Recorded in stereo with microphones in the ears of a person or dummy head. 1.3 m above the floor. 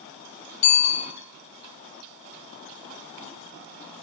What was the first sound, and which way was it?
A bicycle bell, 40° left (ahead or behind).